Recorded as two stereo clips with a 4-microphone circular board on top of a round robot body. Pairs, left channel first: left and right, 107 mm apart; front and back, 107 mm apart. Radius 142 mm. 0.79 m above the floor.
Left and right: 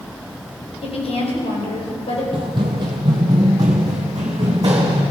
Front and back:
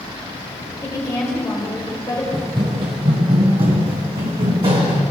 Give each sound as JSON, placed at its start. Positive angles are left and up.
{"t": 0.8, "sound": "a woman speaking", "azimuth_deg": 60, "distance_m": 3.5}
{"t": 2.3, "sound": "running footsteps", "azimuth_deg": -130, "distance_m": 0.9}